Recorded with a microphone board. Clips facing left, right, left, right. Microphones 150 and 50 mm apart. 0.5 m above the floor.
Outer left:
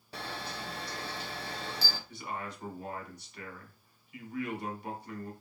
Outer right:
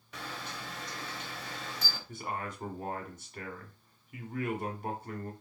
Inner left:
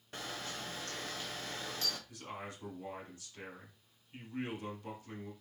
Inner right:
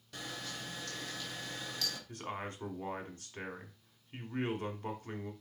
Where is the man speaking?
50° right (ahead or behind), 1.2 m.